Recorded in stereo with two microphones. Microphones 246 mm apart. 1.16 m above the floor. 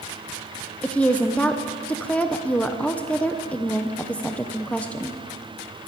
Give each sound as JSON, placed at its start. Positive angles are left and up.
{"t": 0.8, "sound": "a woman speaking", "side_deg": 5, "distance_m": 0.6}